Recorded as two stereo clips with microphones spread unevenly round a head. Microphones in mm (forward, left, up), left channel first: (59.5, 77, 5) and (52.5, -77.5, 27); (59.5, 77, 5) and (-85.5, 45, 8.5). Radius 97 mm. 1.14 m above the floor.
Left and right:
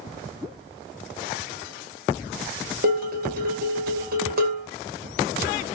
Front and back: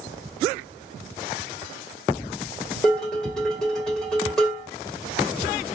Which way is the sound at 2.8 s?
75° right.